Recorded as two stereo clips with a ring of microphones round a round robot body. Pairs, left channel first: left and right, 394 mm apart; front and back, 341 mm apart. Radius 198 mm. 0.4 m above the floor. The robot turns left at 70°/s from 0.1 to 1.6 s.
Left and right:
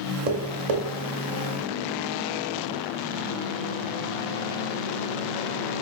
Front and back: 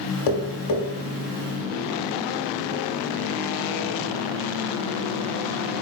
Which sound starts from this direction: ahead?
Tapping, at 0.3 s.